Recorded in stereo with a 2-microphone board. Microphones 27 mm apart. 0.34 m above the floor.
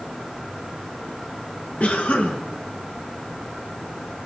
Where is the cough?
75° left (ahead or behind), 4.5 m.